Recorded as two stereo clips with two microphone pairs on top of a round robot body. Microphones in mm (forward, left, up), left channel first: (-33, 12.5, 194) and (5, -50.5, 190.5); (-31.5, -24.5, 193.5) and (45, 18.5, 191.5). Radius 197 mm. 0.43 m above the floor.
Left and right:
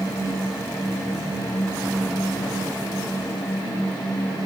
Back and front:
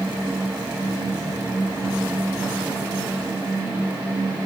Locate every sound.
Only background noise.